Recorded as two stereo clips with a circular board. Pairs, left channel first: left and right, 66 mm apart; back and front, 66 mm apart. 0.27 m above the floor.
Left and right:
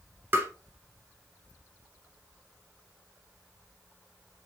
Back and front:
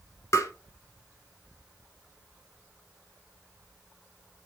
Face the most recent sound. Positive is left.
turn(degrees=-145)